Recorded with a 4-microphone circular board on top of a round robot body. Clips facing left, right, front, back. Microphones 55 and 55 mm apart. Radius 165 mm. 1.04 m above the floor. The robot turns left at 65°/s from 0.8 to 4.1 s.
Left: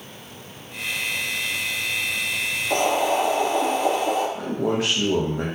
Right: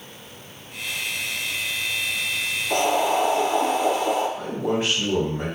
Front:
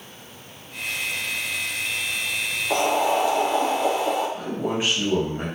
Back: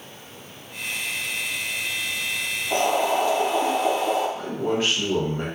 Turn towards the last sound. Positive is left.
turn(degrees=75)